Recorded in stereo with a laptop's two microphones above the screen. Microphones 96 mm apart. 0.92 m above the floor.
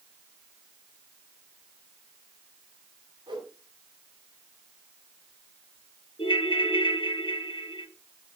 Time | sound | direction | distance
3.3 | a whoosh | 60° right (ahead or behind) | 3 m
6.2 | a ringtone | 65° left (ahead or behind) | 1.4 m